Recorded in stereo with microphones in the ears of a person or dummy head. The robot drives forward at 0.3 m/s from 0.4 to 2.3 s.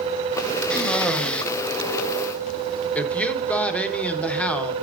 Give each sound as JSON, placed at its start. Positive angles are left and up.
{"t": 0.7, "sound": "a cough", "side_deg": 5, "distance_m": 1.0}
{"t": 3.0, "sound": "a woman speaking", "side_deg": 10, "distance_m": 0.9}